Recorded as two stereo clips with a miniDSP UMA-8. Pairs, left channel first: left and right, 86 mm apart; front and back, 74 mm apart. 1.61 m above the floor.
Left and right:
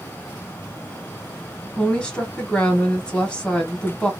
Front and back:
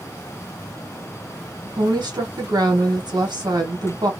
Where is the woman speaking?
170° left, 1.5 m.